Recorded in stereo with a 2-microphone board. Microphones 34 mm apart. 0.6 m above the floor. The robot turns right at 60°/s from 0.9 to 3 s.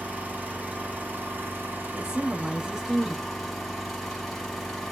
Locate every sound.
0.0 s an engine running: 130° right, 1.3 m; by 4.9 s 5° right, 1.3 m
1.9 s a woman speaking: 25° right (ahead or behind), 0.8 m; by 3.3 s 5° right (ahead or behind), 0.8 m